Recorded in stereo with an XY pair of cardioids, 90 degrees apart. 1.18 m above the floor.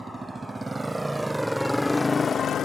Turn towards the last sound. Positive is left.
turn(degrees=75)